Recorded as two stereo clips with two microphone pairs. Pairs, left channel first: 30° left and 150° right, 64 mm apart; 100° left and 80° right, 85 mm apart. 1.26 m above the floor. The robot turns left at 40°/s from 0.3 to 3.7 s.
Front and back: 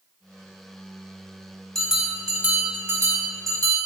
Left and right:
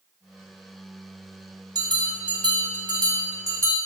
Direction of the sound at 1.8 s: 55° right.